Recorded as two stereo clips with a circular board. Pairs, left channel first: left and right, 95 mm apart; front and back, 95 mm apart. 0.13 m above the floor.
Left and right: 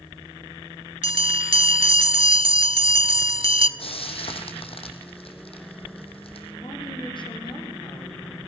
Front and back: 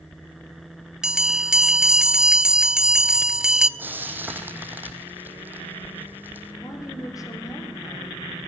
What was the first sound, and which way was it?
A bell, 100° right.